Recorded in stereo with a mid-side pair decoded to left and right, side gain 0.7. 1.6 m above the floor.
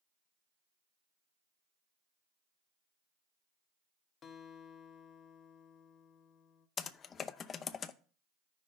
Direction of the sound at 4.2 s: 35° left.